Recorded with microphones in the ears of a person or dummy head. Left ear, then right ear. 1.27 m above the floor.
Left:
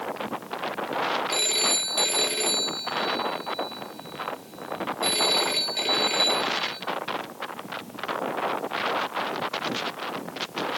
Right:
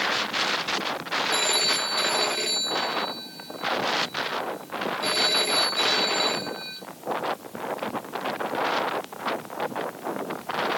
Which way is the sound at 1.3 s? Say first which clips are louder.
Right 4 dB; 5° left (ahead or behind).